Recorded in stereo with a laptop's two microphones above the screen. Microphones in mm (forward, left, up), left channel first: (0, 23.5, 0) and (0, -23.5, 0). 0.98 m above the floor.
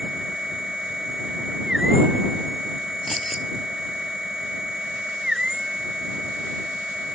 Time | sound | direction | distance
0.0 | a machine running | 15° right (ahead or behind) | ?
3.1 | keys jangling | 5° left (ahead or behind) | ?